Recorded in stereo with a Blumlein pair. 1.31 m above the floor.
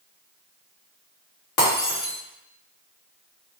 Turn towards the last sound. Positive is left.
turn(degrees=35)